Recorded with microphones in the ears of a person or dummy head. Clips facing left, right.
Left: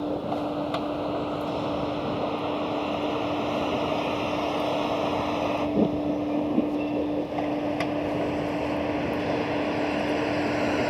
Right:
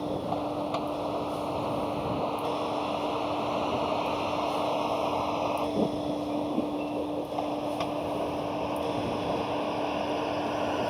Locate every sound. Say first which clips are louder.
0.0 s a vehicle: left 3 dB; 20° left (ahead or behind); by 10.9 s 35° left (ahead or behind)